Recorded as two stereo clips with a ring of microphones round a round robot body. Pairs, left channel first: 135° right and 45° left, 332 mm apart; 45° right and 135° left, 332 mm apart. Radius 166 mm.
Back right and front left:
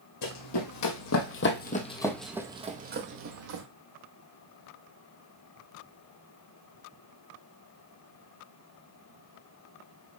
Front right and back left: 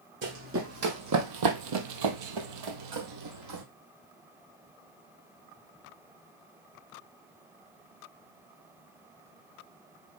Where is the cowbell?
I don't hear a cowbell.